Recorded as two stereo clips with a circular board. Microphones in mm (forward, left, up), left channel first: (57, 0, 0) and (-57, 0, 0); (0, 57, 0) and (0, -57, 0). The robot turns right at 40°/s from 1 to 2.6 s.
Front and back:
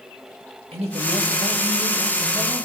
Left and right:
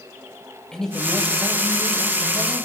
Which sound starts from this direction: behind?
A man speaking, at 0.7 s.